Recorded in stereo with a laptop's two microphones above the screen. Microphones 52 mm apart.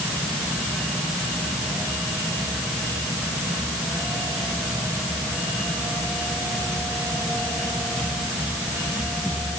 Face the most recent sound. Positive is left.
No sound to turn to.